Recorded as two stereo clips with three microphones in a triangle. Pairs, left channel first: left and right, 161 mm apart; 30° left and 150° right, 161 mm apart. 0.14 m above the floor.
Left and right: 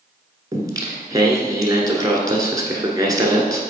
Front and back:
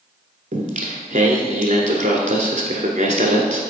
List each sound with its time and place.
0.5 s singing: 150° right, 1.1 m